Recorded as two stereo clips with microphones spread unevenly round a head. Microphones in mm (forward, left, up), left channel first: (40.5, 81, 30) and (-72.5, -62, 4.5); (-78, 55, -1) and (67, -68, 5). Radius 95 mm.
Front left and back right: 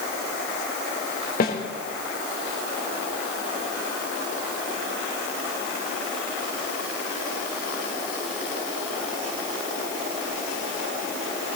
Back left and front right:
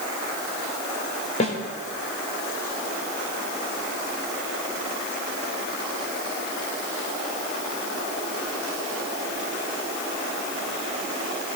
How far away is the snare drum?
About 3.5 m.